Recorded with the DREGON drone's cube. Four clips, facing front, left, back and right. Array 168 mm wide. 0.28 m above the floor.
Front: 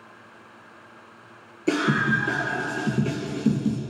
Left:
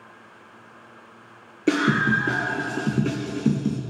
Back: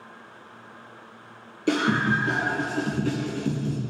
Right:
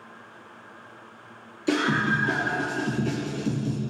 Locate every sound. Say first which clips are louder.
1.7 s a scream: left 3 dB, even; 105° left, 4 m; by 3.8 s 70° left, 2.5 m